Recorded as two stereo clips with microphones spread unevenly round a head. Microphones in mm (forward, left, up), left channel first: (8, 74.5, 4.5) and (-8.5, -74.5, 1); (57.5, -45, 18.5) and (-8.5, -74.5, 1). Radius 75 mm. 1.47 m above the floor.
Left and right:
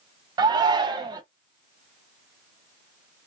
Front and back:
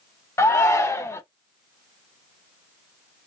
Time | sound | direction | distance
0.4 | a shout | 30° right | 1.0 m